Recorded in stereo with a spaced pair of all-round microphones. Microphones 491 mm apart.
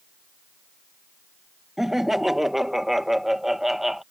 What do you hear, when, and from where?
1.8 s laughter: centre (ahead or behind)